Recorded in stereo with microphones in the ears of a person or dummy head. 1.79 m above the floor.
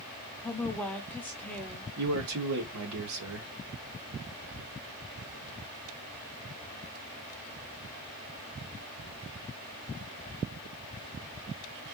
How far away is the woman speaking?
About 0.9 m.